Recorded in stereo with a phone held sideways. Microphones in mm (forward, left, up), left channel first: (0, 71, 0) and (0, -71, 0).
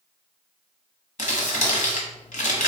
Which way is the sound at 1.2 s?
65° left (ahead or behind).